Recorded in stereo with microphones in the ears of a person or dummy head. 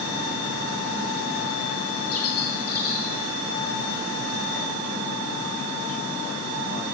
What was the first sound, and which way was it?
A bird, 40° left (ahead or behind).